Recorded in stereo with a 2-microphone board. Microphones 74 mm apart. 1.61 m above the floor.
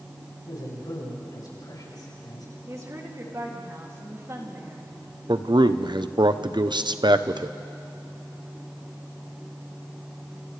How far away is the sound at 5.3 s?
About 0.8 m.